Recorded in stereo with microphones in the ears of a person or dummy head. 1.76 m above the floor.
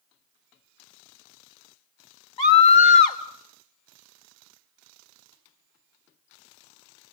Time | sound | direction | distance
2.4 | a scream | 35° left (ahead or behind) | 3.5 m